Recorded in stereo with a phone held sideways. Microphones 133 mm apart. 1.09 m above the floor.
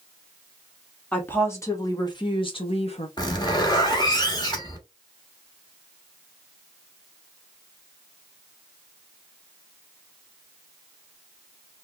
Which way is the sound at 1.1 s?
10° left (ahead or behind).